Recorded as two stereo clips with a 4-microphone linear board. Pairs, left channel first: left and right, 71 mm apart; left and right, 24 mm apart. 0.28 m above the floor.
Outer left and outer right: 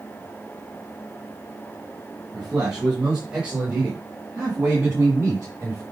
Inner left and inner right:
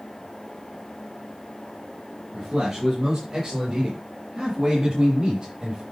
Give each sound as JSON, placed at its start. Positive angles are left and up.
{"t": 2.3, "sound": "a man speaking", "side_deg": -10, "distance_m": 5.5}